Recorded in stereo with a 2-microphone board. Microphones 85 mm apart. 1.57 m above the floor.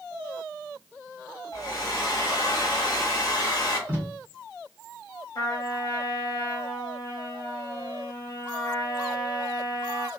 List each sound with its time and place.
1.5 s a hair dryer: 40° left (ahead or behind), 1.4 m
3.9 s tape being pulled: 25° right (ahead or behind), 1.0 m
5.3 s a trumpet: 50° left (ahead or behind), 0.8 m